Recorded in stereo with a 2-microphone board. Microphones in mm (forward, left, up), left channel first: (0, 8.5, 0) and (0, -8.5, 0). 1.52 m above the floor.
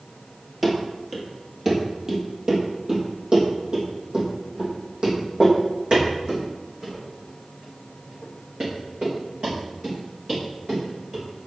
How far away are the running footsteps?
About 1.7 m.